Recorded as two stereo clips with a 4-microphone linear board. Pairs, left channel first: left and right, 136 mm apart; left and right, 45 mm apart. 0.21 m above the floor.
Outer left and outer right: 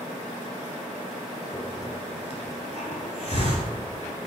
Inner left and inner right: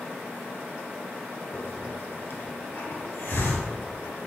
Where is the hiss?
50° left (ahead or behind), 0.9 m.